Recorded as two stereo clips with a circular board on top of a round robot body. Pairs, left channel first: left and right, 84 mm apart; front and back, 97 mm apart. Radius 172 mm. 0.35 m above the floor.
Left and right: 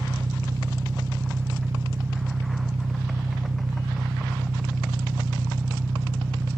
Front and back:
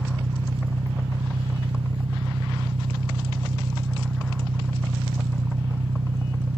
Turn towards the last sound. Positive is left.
turn(degrees=-150)